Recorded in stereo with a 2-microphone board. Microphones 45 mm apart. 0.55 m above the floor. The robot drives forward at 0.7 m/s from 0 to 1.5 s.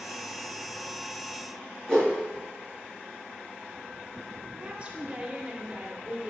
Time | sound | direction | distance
1.9 | a whoosh | 15° left (ahead or behind) | 3.5 m
4.5 | a woman speaking | 25° right (ahead or behind) | 1.5 m